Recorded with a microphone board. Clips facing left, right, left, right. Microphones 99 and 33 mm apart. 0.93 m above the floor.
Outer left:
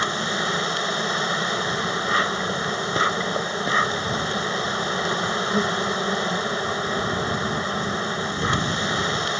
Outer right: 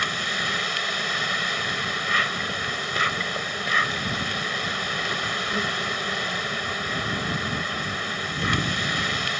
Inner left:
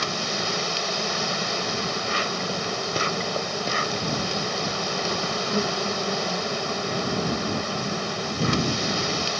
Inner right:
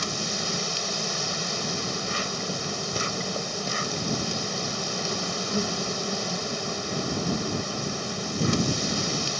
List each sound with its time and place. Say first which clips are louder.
0.0 s an insect: outer left 4 dB, inner left 4 dB; 25° left (ahead or behind)